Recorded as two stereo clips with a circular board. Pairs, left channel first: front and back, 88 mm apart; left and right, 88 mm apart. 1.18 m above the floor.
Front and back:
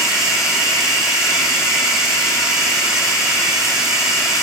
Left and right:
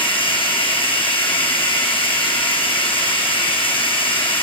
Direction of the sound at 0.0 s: 95° left.